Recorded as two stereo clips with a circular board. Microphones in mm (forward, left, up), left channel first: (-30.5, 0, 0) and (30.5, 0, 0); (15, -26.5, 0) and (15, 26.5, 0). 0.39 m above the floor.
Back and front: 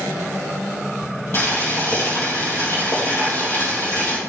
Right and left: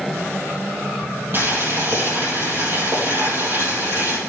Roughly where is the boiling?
Behind left.